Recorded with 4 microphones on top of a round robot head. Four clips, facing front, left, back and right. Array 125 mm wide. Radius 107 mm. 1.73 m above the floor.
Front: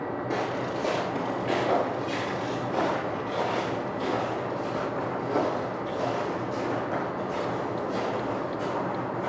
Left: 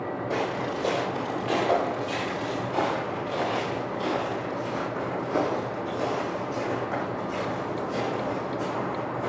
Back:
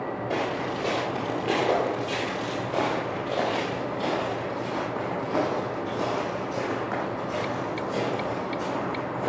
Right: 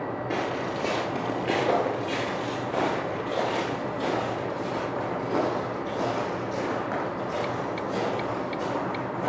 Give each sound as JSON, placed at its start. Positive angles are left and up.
{"t": 0.3, "sound": "footsteps", "azimuth_deg": -70, "distance_m": 1.9}